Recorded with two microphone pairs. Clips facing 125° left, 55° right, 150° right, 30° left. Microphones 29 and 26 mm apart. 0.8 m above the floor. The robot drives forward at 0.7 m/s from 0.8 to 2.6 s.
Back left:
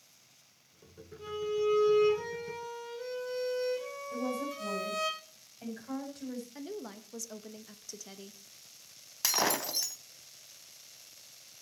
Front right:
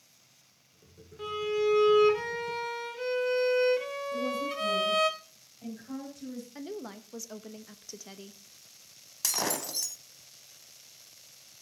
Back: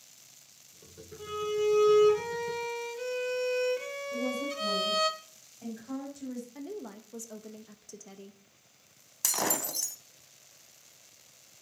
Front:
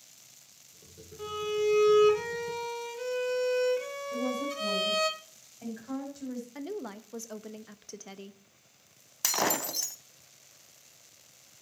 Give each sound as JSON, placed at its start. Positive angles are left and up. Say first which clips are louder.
{"t": 1.2, "sound": "a violin", "louder": "front right 3 dB, even", "azimuth_deg": -40, "distance_m": 1.9}
{"t": 4.1, "sound": "a woman speaking", "louder": "front right 2 dB, front 1 dB", "azimuth_deg": 90, "distance_m": 5.5}
{"t": 6.5, "sound": "a woman speaking", "louder": "front right 2 dB, front 3 dB", "azimuth_deg": 15, "distance_m": 0.7}
{"t": 9.2, "sound": "breaking glass", "louder": "back left 2 dB, front 2 dB", "azimuth_deg": 75, "distance_m": 0.7}